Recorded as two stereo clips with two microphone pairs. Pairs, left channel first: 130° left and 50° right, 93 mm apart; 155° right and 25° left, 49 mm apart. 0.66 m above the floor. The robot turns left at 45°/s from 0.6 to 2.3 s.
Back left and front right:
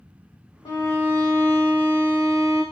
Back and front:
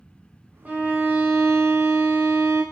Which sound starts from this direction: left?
A violin, at 0.7 s.